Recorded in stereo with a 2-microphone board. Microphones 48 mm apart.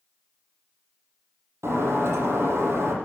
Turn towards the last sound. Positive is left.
turn(degrees=-65)  # may be behind; listen again after turning